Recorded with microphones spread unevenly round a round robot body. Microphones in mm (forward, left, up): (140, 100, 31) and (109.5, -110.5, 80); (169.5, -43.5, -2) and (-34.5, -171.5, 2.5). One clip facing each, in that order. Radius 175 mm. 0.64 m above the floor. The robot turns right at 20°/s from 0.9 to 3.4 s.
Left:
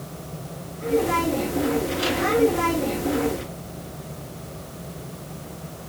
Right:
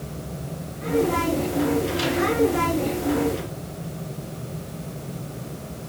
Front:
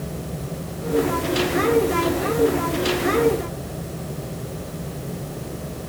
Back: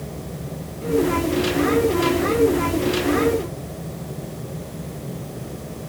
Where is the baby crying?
I don't hear a baby crying.